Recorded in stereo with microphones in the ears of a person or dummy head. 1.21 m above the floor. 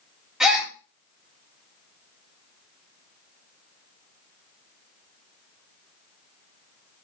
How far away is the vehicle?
No vehicle in this recording.